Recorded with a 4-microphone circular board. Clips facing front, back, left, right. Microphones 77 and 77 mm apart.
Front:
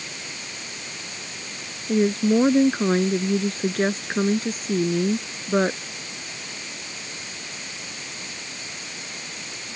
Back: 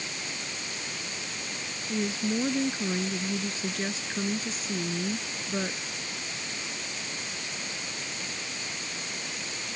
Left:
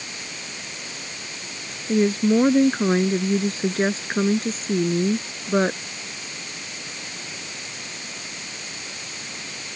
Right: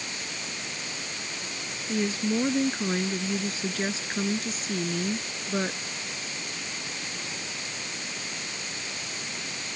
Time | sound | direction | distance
1.9 | a woman speaking | 40° left | ?